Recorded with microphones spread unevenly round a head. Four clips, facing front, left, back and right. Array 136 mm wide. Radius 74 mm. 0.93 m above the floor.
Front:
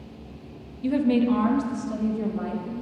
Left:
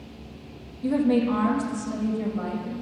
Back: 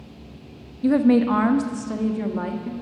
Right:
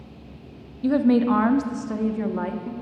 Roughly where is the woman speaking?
Behind.